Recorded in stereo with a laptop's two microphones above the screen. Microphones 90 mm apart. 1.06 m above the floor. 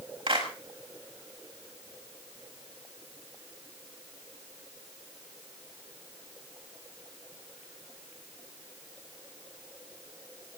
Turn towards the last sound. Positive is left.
turn(degrees=-70)  # may be behind; listen again after turning